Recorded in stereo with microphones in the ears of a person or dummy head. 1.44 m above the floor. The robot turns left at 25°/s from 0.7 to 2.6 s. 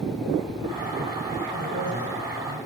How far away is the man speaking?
About 7.5 m.